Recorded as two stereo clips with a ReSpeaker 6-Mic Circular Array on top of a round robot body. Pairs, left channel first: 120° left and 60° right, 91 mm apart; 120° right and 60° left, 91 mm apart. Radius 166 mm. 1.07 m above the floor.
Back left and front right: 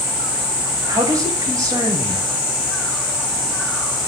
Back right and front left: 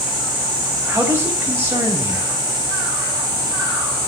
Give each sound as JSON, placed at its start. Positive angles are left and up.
{"t": 0.9, "sound": "a man speaking", "azimuth_deg": -10, "distance_m": 7.5}